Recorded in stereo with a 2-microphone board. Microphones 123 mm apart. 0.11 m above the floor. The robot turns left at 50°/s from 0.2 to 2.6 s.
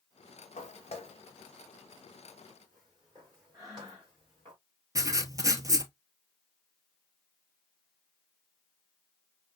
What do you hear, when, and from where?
0.6 s footsteps: 85° left, 1.0 m; by 4.5 s 40° right (ahead or behind), 4.5 m
3.5 s breathing: 25° right (ahead or behind), 2 m
5.0 s writing: 30° right (ahead or behind), 0.7 m